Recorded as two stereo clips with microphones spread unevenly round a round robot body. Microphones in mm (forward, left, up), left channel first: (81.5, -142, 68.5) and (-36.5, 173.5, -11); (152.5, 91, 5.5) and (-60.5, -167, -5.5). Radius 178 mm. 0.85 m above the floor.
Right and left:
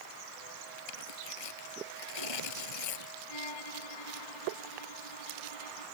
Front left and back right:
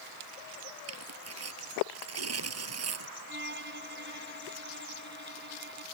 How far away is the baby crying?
No baby crying in this recording.